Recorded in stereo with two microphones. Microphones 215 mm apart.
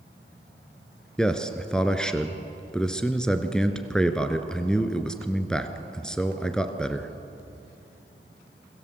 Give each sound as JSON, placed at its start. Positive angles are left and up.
{"t": 1.2, "sound": "a man speaking", "side_deg": 5, "distance_m": 1.6}